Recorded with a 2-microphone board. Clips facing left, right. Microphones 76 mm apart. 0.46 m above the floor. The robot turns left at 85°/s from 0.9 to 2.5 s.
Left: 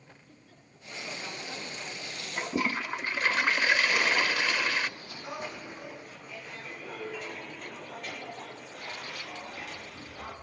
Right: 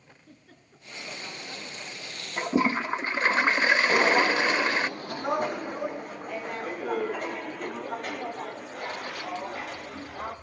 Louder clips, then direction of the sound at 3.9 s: Right 6 dB; 45° right (ahead or behind).